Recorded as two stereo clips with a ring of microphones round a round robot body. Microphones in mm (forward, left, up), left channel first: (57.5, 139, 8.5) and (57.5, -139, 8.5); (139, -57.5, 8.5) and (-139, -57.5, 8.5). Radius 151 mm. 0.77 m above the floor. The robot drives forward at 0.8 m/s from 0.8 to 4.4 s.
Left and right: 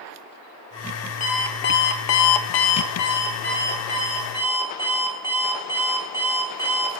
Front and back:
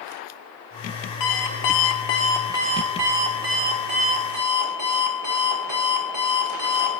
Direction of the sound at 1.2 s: 25° left.